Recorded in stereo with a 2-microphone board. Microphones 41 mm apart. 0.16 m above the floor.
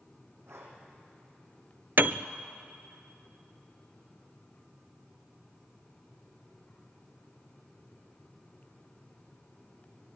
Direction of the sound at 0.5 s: 80° right.